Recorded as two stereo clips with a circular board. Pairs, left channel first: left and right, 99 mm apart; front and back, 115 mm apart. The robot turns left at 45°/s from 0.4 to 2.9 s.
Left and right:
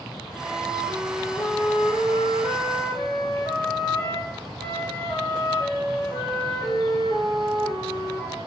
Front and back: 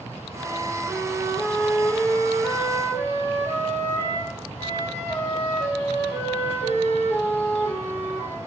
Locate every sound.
0.3 s a flute: 140° left, 1.7 m; by 8.4 s 30° left, 1.7 m